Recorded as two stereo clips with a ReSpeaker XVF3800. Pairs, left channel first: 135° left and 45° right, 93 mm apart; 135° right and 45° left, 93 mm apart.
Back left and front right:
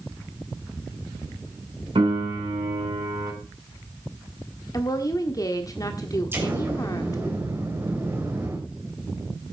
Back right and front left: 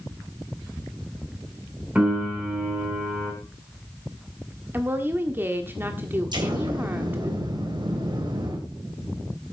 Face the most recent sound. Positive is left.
turn(degrees=15)